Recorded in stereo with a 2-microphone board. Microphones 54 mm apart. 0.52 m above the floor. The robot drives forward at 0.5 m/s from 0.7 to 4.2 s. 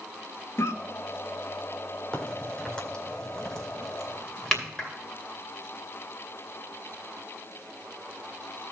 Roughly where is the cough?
Left.